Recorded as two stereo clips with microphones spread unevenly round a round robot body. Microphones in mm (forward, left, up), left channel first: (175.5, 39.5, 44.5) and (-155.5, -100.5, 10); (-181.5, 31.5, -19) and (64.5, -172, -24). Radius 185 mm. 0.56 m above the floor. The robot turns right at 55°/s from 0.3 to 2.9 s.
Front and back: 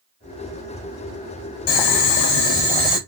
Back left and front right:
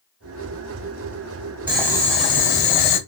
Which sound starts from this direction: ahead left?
Boiling, at 1.7 s.